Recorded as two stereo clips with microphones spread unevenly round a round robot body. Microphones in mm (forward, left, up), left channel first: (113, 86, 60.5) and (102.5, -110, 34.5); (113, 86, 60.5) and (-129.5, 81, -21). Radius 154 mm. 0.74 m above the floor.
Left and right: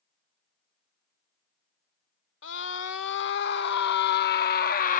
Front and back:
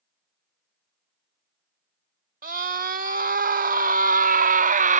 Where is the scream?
130° left; by 5.0 s 140° left.